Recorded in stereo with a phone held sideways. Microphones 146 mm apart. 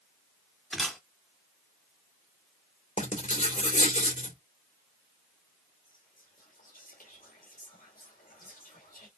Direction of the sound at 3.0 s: 55° left (ahead or behind).